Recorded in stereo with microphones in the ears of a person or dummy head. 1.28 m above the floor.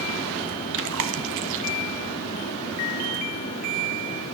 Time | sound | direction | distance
0.7 | chewing | 70° right (ahead or behind) | 1.6 m